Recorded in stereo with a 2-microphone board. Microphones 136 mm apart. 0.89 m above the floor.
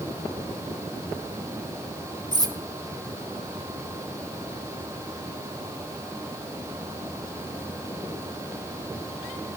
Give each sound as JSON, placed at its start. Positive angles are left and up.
{"t": 2.3, "sound": "cutlery clinking", "side_deg": -30, "distance_m": 1.2}